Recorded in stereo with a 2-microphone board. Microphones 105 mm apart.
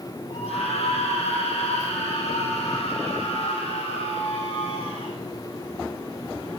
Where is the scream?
75° left (ahead or behind), 10 m.